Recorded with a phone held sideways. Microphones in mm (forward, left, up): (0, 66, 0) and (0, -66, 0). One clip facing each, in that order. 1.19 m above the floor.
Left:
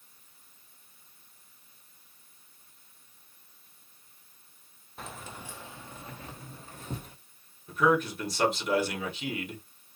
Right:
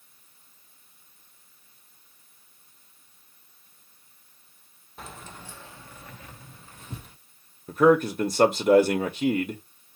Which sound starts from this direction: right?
A man speaking, at 7.7 s.